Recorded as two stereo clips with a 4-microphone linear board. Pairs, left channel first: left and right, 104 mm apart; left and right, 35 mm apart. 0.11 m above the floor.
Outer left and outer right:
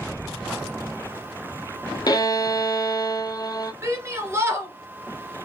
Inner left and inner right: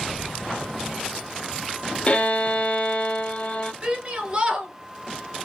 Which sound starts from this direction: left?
A violin, at 2.1 s.